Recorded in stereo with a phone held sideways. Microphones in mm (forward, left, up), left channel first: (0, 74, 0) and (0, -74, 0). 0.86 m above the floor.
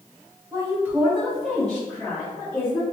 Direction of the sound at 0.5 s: 25° right (ahead or behind).